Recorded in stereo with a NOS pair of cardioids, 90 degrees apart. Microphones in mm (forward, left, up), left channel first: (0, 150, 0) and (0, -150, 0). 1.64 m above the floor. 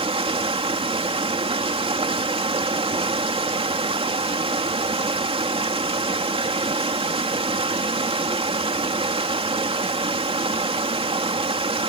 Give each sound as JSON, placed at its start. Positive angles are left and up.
{"t": 0.0, "sound": "running water", "azimuth_deg": -20}